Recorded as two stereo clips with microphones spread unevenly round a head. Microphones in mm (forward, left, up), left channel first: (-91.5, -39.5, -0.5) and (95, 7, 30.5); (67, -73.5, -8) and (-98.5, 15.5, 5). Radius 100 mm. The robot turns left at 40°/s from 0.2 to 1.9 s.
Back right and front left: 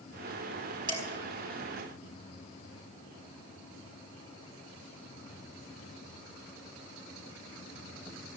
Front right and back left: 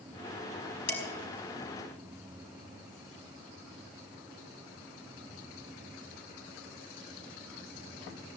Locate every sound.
0.9 s dishes clattering: 50° right, 4.5 m; by 1.1 s 60° right, 4.5 m